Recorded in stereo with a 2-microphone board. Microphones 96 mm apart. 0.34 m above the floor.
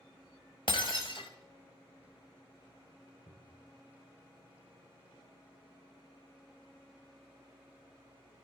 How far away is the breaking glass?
About 0.9 m.